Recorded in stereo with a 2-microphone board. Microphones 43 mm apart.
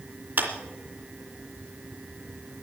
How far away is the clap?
About 3 m.